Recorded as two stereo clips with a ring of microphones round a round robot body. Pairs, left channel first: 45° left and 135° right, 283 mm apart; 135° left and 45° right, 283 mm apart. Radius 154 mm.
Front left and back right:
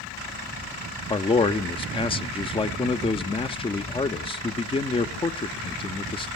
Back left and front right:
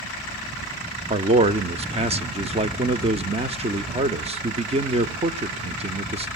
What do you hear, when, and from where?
1.1 s a man speaking: 5° right, 0.8 m